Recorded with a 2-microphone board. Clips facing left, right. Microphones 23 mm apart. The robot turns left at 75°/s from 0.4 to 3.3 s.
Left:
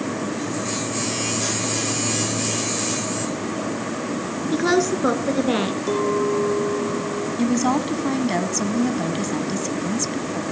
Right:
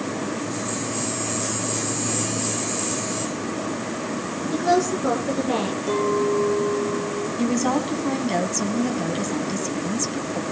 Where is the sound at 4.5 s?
55° left (ahead or behind), 2.5 m.